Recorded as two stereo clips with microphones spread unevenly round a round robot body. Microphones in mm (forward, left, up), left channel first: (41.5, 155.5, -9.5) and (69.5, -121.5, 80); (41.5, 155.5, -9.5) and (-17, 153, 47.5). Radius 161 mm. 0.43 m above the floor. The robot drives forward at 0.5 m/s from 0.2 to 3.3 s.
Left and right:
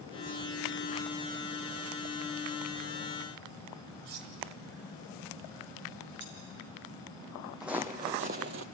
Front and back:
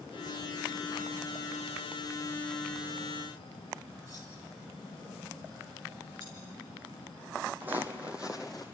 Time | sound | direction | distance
4.0 | cutlery clinking | 90° right | 2 m
6.2 | cutlery clinking | 140° right | 5 m
7.6 | footsteps | 165° right | 1.0 m